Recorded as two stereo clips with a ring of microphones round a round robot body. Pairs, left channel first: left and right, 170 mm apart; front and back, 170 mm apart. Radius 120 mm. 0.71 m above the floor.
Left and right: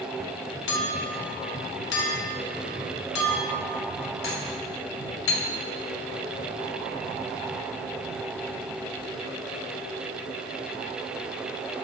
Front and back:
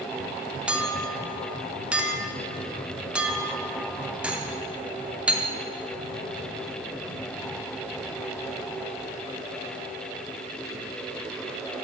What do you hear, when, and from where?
0.7 s a clink: 95° left, 0.7 m